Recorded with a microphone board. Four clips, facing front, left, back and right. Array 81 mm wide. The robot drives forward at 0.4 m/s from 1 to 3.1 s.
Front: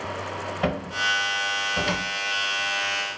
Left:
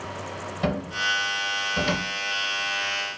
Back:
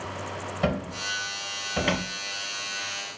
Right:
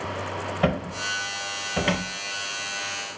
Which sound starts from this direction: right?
A cupboard door, at 0.6 s.